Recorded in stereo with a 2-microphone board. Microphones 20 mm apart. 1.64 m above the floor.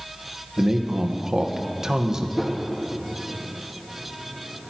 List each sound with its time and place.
0.6 s a man speaking: 30° right (ahead or behind), 1.3 m
2.4 s a whoosh: 5° left (ahead or behind), 1.4 m